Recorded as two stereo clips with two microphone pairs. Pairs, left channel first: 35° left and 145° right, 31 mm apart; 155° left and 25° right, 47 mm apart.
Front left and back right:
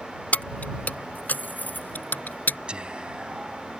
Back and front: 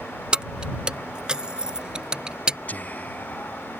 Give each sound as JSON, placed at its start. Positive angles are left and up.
{"t": 0.3, "sound": "keys jangling", "azimuth_deg": 40}
{"t": 2.7, "sound": "whispering", "azimuth_deg": 180}